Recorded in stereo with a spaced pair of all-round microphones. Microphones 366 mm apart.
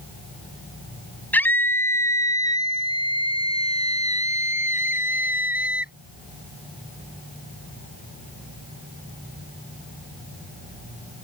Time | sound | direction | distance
1.3 | a scream | 5° left (ahead or behind) | ?